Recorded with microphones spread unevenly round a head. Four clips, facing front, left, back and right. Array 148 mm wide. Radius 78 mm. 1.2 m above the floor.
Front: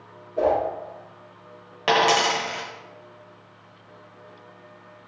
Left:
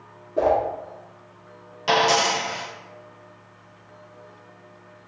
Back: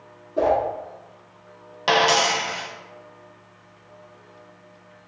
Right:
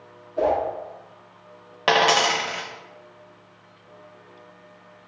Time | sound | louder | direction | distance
0.4 | a whoosh | left 2 dB, back 1 dB | 120° left | 1.1 m
1.9 | a dropped coin | right 1 dB, even | 90° right | 0.7 m